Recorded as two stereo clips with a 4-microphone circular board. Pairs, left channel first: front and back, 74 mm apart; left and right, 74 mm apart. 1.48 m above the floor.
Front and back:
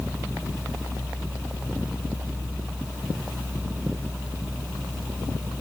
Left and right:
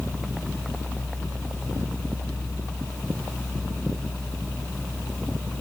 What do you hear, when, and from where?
Only background noise.